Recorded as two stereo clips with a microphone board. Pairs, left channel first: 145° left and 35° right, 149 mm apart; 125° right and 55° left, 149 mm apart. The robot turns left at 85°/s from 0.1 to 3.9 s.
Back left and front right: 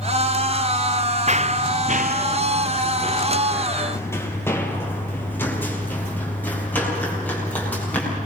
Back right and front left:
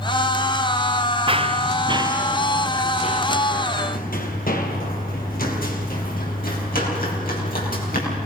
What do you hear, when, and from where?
1.3 s running footsteps: 5° left, 0.6 m; by 8.3 s 135° right, 8 m